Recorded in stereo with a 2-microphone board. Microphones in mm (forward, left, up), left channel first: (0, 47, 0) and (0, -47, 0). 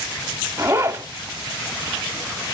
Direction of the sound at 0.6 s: 25° right (ahead or behind).